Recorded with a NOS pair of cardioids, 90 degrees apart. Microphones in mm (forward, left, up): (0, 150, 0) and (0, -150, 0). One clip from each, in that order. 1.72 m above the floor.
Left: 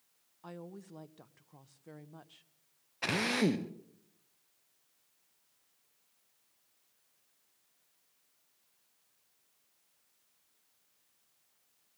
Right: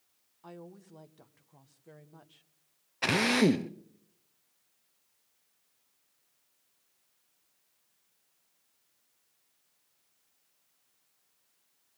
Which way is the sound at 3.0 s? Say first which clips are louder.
Right 5 dB; 25° right.